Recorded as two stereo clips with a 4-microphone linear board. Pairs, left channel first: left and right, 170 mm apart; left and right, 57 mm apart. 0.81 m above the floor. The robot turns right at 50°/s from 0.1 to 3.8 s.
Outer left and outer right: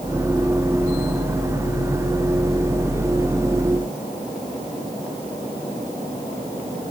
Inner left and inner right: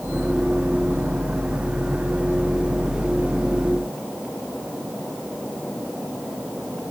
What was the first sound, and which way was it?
Only background noise.